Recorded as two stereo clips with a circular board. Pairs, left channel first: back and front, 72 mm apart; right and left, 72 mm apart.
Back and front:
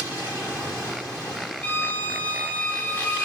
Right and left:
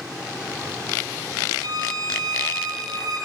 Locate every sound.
1.6 s a violin: 115° left, 5.5 m